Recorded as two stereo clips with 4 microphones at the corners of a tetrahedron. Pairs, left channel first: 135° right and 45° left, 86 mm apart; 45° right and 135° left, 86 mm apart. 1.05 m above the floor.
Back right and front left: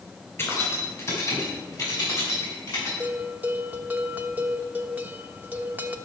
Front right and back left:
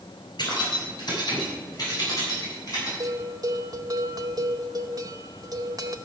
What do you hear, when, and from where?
0.4 s keys jangling: 75° right, 4 m; by 2.9 s 95° right, 7.5 m
3.0 s a bell: 110° left, 0.8 m